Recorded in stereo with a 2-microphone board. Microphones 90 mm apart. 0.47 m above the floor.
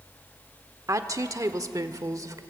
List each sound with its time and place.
0.9 s a woman speaking: 35° right (ahead or behind), 1.2 m; by 2.4 s 40° right (ahead or behind), 1.6 m